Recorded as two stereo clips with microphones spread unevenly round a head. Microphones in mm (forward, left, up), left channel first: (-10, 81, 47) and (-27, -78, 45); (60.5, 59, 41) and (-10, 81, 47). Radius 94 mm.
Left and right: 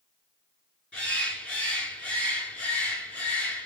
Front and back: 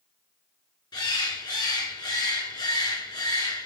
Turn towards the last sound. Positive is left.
turn(degrees=0)